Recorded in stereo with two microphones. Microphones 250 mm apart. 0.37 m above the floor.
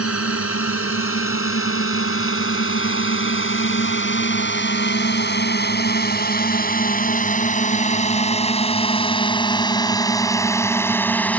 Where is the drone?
65° left (ahead or behind); by 11.4 s 5° left (ahead or behind).